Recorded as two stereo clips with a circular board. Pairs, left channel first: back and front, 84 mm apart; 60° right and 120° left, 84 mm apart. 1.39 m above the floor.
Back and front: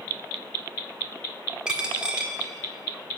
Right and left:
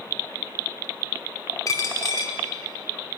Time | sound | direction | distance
1.7 | a dropped coin | 75° right | 1.3 m